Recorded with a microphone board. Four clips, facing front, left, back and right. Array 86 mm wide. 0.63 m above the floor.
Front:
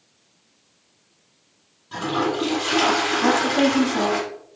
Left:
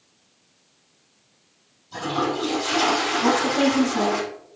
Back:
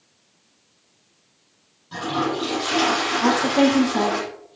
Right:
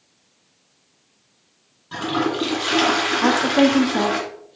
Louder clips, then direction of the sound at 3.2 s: Right 4 dB, back 2 dB; 115° right.